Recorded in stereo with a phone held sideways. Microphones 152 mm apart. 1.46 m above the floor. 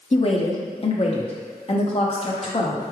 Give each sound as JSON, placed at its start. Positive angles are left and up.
{"t": 0.1, "sound": "a woman speaking", "side_deg": 40, "distance_m": 0.7}